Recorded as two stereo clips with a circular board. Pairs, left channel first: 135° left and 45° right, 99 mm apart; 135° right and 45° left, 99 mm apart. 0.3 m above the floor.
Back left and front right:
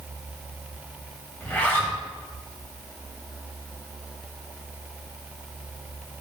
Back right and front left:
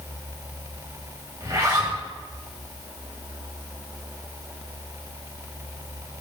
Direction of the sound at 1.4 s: 75° left.